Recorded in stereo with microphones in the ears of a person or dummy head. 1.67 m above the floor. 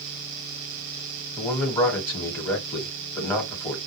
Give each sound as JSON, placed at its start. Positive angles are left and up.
{"t": 1.4, "sound": "a man speaking", "side_deg": 15, "distance_m": 1.3}